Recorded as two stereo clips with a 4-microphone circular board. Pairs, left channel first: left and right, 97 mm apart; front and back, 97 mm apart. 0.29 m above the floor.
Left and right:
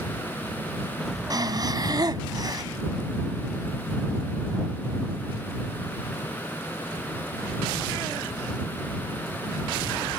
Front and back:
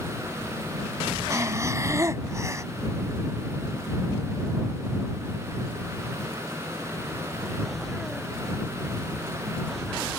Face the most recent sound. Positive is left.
turn(degrees=-125)